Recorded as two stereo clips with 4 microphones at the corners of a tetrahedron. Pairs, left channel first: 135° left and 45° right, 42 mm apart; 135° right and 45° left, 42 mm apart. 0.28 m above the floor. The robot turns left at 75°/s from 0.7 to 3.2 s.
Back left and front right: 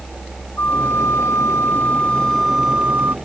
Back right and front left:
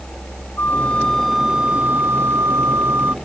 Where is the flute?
Straight behind; by 3.1 s 5° right.